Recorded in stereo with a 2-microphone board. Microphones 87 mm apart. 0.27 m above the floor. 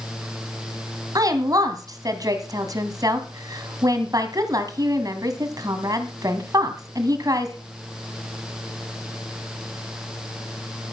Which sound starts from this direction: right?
A woman speaking, at 1.1 s.